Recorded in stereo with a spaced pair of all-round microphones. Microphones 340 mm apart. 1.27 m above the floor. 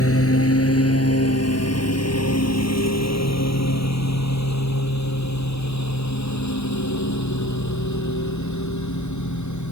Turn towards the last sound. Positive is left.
turn(degrees=55)  # may be behind; listen again after turning